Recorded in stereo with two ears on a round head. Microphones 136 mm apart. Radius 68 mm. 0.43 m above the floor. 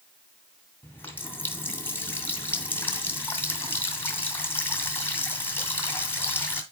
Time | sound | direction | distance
0.8 | a running tap | 15° left (ahead or behind) | 1.7 m